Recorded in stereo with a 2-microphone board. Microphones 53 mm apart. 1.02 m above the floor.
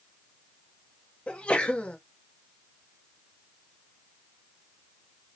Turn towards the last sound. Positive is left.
turn(degrees=25)  # may be behind; listen again after turning